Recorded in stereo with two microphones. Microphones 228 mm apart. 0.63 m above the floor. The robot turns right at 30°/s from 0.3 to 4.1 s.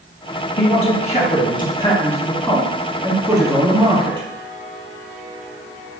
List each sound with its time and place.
0.6 s a man speaking: 115° left, 1.2 m; by 4.3 s 140° right, 1.2 m